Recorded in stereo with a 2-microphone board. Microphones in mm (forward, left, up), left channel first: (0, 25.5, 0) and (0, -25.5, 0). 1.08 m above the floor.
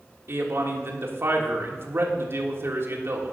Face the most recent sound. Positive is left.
turn(degrees=-50)  # may be behind; listen again after turning